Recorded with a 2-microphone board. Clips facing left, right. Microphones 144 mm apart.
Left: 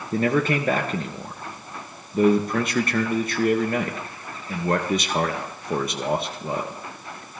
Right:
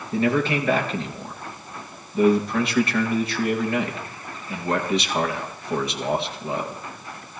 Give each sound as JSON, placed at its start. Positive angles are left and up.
{"t": 0.1, "sound": "a man speaking", "side_deg": 45, "distance_m": 2.5}